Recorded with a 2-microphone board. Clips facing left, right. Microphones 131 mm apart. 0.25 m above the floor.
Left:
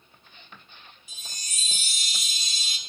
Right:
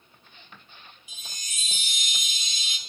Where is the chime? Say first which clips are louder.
Even; 40° left (ahead or behind), 1.1 m.